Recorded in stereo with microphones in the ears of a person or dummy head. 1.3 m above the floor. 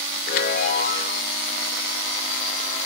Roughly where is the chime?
Left.